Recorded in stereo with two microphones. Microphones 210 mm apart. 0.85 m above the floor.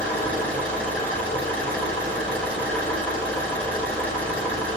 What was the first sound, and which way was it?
An engine running, 5° left (ahead or behind).